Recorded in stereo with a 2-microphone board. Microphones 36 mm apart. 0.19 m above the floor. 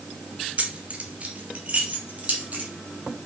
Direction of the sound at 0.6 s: 40° right (ahead or behind).